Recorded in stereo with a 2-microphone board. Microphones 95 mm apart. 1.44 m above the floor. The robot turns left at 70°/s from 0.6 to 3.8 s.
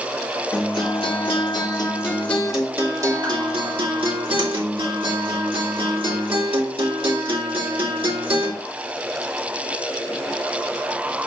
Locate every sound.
0.5 s a guitar: 130° left, 2.5 m; by 8.5 s 95° right, 2.5 m